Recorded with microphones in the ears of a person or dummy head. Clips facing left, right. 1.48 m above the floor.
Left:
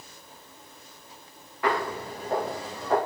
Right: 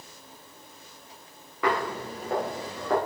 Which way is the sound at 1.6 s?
60° right (ahead or behind).